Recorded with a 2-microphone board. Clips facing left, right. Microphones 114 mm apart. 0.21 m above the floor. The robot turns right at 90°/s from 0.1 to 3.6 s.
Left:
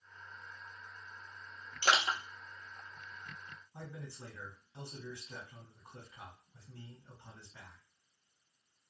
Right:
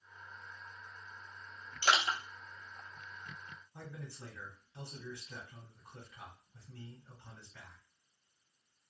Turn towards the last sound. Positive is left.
turn(degrees=20)  # may be behind; listen again after turning